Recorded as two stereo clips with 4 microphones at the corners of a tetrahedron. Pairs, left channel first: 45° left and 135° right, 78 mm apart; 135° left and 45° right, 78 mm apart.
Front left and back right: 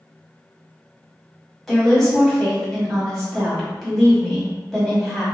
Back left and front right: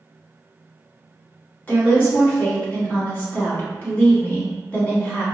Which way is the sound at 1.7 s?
125° left.